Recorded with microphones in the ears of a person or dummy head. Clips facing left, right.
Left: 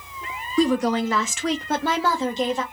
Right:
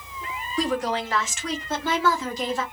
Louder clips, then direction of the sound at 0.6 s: Left 6 dB; 70° left (ahead or behind).